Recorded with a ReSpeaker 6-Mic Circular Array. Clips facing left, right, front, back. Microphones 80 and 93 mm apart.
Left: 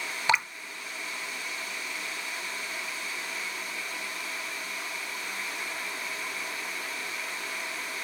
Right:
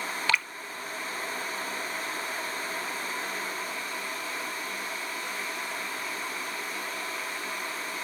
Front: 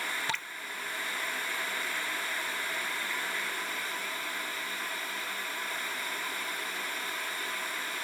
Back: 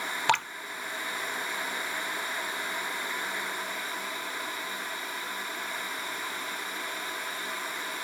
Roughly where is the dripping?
Behind.